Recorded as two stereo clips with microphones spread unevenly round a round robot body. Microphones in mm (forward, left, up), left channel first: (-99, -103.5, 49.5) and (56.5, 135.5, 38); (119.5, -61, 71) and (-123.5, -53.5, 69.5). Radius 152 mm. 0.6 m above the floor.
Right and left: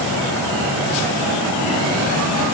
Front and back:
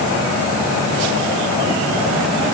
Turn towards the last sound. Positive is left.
No sound to turn to.